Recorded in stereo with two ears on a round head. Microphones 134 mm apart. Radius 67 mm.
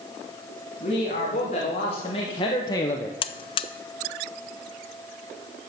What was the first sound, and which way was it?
A man speaking, 45° left (ahead or behind).